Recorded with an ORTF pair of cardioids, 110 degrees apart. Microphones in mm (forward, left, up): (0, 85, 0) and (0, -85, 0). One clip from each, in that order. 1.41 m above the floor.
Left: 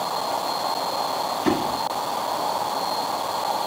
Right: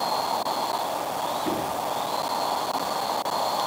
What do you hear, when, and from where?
1.4 s a door slam: 60° left, 9 m